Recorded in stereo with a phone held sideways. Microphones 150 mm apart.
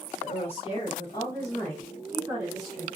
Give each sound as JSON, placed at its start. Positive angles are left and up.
{"t": 0.2, "sound": "a woman speaking", "side_deg": 50, "distance_m": 1.2}